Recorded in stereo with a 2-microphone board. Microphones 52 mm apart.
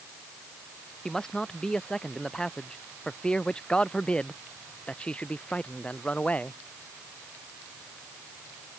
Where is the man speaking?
10° left (ahead or behind); by 6.6 s 25° left (ahead or behind).